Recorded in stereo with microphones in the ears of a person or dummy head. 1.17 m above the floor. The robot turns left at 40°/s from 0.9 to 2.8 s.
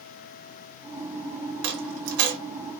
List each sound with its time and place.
1.6 s a dropped coin: 60° right (ahead or behind), 0.8 m; by 2.4 s 45° right (ahead or behind), 0.8 m